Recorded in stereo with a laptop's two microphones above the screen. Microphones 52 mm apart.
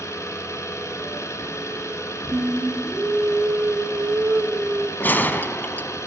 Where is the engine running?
70° left (ahead or behind), 3 m.